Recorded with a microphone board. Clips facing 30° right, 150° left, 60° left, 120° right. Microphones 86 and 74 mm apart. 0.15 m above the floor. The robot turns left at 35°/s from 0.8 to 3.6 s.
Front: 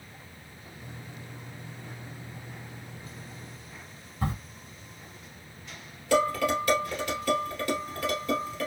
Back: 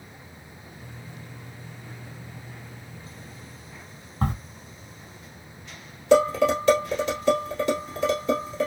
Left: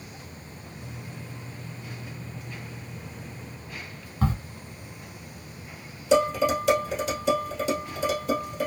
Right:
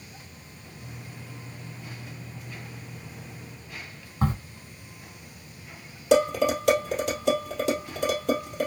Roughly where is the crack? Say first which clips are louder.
Back 4 dB, even; behind.